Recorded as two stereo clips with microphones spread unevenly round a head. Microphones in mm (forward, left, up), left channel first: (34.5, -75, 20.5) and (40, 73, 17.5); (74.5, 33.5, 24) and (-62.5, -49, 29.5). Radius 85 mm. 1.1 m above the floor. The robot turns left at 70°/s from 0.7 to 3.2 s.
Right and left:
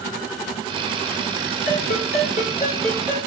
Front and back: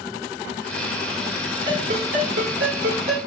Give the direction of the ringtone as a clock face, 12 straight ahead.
3 o'clock.